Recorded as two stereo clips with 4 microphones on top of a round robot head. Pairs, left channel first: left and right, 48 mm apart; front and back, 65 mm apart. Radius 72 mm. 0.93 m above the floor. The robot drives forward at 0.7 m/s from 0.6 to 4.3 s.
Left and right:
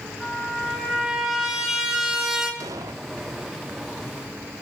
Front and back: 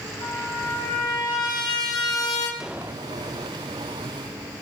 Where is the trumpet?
10° right, 5.5 m; by 2.5 s 15° right, 4 m.